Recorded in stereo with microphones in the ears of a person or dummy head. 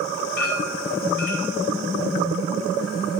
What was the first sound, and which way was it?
A clink, 65° left (ahead or behind).